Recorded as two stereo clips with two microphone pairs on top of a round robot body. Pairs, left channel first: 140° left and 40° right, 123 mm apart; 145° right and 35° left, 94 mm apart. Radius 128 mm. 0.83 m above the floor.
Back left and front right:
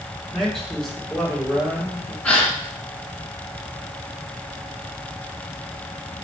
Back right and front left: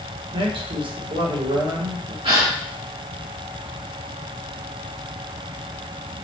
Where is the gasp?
60° left, 2.5 m.